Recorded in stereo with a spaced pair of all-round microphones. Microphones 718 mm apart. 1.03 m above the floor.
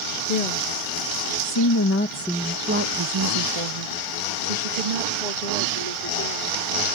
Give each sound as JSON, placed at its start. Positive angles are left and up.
{"t": 0.3, "sound": "a woman speaking", "side_deg": 60}